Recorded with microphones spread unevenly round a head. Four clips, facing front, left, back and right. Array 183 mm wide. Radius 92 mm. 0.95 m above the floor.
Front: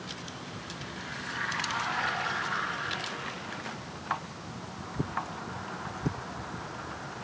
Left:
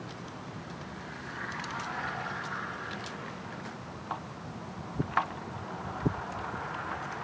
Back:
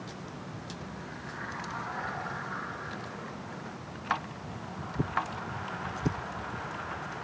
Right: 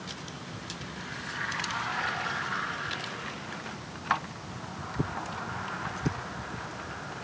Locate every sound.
Only background noise.